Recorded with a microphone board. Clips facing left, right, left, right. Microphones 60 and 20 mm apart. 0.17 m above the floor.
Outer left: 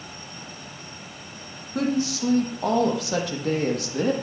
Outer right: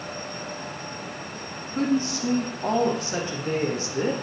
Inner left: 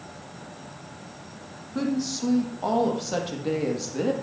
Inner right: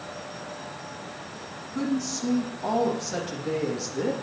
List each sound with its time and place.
1.8 s a woman speaking: 80° left, 5.5 m; by 4.1 s 65° left (ahead or behind), 4.5 m